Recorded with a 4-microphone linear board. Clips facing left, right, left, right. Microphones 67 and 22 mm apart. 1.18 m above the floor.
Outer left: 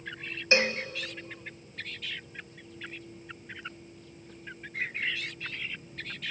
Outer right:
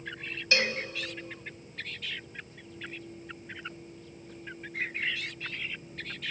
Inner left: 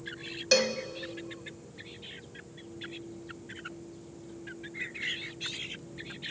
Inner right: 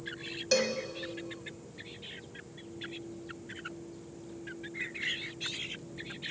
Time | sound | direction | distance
0.5 | a cowbell | 25° left (ahead or behind) | 1.3 m